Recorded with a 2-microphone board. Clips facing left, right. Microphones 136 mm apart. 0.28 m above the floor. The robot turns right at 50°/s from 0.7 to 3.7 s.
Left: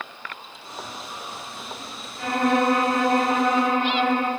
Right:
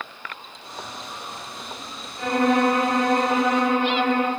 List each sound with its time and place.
2.2 s a violin: 65° right, 1.3 m; by 4.3 s 10° left, 1.3 m